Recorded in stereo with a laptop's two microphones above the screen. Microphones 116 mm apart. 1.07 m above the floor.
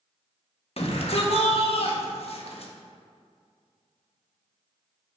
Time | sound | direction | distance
0.8 | a shout | 55° left (ahead or behind) | 1.3 m